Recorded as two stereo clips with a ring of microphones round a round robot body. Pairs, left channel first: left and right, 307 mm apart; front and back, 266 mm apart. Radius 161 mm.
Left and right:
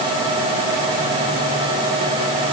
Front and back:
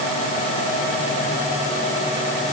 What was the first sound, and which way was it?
Only background noise.